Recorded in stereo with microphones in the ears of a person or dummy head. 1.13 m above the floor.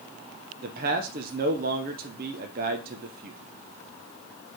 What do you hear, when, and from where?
0.6 s a man speaking: 40° right (ahead or behind), 0.7 m